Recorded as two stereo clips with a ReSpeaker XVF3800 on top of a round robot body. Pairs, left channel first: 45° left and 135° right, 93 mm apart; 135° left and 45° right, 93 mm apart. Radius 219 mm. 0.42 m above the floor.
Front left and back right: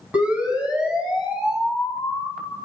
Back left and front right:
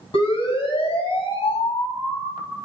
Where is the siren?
150° left, 8.5 m; by 2.6 s 140° left, 5.5 m.